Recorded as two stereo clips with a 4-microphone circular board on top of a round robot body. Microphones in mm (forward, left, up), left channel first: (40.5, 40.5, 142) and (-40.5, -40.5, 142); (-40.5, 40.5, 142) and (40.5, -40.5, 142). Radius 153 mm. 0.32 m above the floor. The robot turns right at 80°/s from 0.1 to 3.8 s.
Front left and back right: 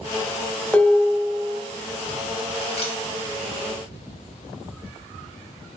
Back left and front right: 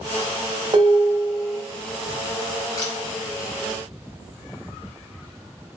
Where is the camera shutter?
75° left, 1.2 m; by 2.9 s 85° left, 1.2 m.